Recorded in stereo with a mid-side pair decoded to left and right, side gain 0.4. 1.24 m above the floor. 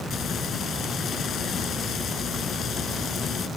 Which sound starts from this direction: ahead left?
Frying, at 0.1 s.